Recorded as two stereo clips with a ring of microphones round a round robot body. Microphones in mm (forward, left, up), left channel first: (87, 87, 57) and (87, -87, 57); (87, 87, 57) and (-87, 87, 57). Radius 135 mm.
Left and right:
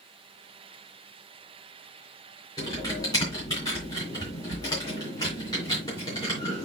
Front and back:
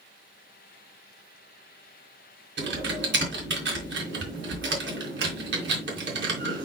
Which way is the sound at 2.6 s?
165° left.